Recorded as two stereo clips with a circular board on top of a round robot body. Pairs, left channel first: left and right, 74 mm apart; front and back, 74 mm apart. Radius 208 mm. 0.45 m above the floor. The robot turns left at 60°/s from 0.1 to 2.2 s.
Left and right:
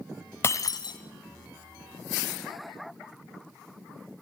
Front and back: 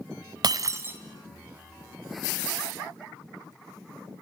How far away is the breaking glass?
About 0.9 m.